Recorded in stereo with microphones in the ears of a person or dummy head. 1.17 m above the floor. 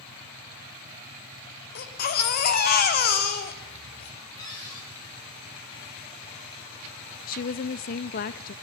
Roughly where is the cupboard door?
Left.